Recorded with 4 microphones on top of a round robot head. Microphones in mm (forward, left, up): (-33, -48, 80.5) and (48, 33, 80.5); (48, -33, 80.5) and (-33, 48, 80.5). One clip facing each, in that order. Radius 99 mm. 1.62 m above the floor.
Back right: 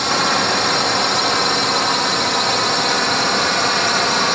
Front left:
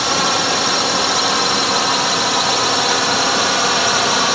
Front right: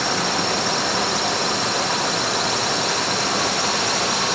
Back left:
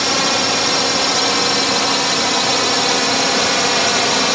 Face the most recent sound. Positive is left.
turn(degrees=125)